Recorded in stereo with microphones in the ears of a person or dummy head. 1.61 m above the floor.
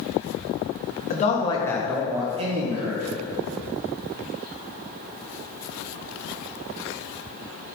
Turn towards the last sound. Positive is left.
turn(degrees=-55)  # may be behind; listen again after turning